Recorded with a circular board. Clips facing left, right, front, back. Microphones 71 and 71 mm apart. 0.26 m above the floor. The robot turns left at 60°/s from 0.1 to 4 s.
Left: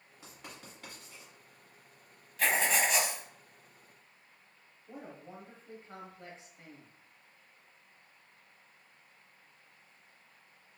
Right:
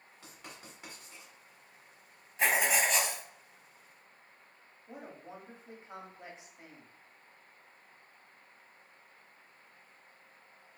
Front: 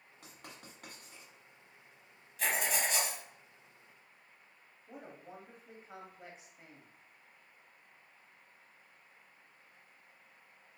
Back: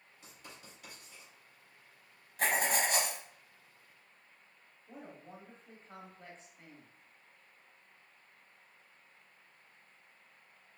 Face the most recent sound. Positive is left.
turn(degrees=-60)